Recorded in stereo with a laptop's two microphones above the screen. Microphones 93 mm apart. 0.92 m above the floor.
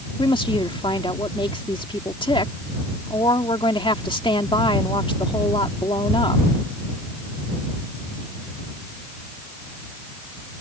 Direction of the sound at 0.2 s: 75° left (ahead or behind).